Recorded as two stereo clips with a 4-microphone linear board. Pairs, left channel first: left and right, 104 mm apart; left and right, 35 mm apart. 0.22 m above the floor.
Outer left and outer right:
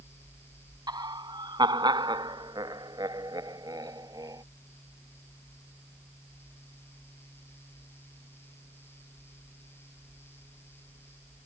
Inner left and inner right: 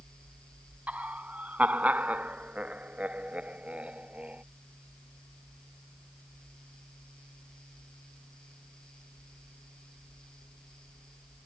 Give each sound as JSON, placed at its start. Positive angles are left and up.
{"t": 0.9, "sound": "laughter", "side_deg": -45}